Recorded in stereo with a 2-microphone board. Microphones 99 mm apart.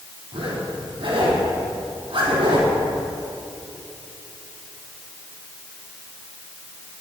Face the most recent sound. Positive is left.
turn(degrees=-65)  # may be behind; listen again after turning